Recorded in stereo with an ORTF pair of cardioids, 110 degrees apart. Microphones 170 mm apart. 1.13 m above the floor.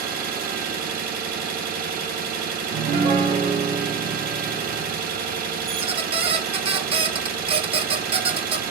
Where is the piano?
35° right, 0.6 m.